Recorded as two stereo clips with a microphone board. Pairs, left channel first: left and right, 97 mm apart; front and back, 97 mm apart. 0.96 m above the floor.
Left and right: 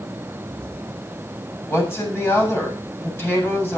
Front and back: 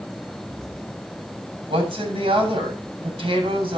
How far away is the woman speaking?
About 7.5 m.